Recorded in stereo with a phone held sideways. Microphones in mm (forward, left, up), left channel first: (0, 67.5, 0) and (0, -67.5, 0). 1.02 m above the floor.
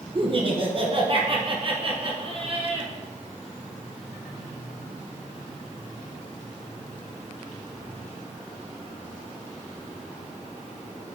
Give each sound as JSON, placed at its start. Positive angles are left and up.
{"t": 0.1, "sound": "laughter", "side_deg": -40, "distance_m": 0.9}